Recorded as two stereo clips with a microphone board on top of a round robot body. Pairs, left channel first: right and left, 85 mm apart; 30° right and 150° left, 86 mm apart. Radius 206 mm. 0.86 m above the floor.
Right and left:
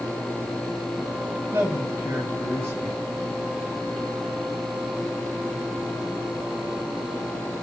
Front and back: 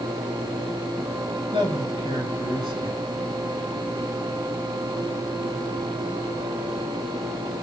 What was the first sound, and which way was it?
A man speaking, 155° left.